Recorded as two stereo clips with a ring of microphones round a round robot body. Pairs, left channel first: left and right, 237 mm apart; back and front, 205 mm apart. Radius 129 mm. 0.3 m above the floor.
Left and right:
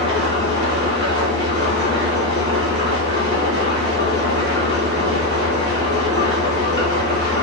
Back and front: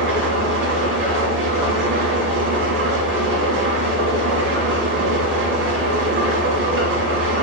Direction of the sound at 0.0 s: 20° left.